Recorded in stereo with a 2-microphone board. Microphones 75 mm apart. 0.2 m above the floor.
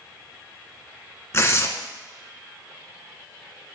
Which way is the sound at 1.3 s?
35° left (ahead or behind).